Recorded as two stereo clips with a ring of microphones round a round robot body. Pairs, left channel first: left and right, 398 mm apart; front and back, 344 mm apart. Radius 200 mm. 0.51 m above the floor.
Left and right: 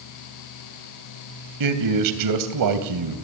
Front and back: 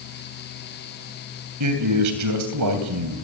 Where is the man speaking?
130° right, 2.5 m.